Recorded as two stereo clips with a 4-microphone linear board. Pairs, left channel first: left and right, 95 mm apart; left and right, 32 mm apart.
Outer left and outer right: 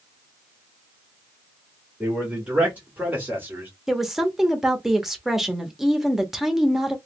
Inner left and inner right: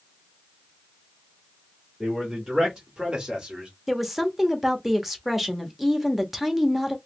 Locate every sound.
2.0 s a man speaking: 10° right (ahead or behind), 1.5 m; by 3.7 s 20° right (ahead or behind), 1.3 m
3.9 s a woman speaking: 5° right (ahead or behind), 0.8 m